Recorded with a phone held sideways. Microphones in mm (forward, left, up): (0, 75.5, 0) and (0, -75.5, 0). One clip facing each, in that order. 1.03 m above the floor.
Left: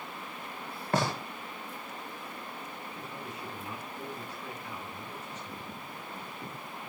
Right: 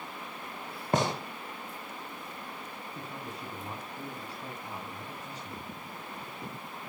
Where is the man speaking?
35° right (ahead or behind), 8.5 m.